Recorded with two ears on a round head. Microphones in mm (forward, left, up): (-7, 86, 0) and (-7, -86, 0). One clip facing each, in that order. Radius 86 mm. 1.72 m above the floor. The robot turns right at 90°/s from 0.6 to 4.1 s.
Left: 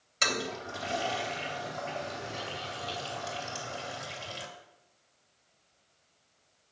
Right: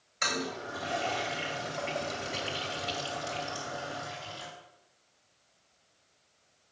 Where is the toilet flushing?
45° left (ahead or behind), 2.5 m; by 4.5 s 60° left (ahead or behind), 2.5 m.